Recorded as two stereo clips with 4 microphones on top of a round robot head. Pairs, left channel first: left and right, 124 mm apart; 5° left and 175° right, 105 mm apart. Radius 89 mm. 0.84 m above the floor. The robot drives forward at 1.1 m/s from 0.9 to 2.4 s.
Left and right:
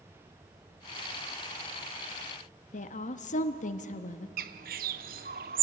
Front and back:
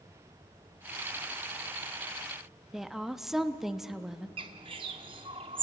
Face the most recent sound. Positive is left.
turn(degrees=-115)